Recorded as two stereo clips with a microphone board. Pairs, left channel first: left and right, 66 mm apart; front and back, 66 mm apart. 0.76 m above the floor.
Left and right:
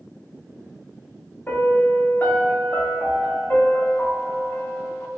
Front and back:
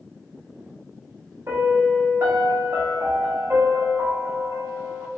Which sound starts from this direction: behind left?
A piano, at 1.5 s.